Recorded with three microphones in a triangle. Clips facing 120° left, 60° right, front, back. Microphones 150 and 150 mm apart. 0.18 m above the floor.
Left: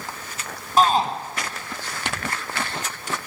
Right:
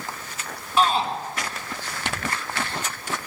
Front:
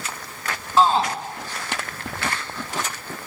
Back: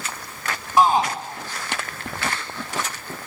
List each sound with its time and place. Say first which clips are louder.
0.8 s a shout: left 3 dB, back 1 dB; 115° left, 1.6 m